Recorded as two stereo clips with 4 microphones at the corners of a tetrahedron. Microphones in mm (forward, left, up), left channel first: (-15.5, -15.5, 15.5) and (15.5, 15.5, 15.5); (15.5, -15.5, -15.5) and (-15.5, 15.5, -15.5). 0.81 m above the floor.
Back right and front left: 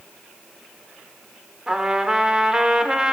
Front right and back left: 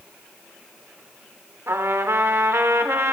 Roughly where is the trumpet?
Behind left.